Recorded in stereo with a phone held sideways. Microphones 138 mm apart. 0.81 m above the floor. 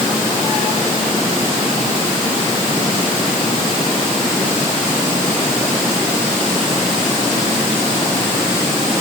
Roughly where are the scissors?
No scissors in this recording.